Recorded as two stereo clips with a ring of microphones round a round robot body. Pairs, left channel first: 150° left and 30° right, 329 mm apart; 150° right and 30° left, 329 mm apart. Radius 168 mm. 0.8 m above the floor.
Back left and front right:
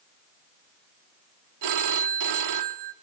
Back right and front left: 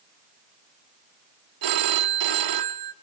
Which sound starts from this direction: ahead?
A phone ringing, at 1.6 s.